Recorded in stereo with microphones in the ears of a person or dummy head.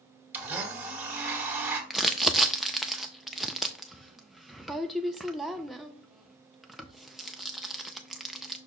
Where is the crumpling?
Centre (ahead or behind), 0.6 m.